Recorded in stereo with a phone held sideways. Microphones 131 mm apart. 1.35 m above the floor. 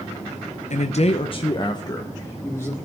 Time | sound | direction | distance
0.7 | a man speaking | 65° left (ahead or behind) | 0.7 m